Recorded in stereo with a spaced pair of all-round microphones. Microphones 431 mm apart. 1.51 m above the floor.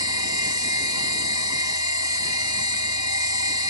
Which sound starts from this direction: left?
A machine running, at 0.0 s.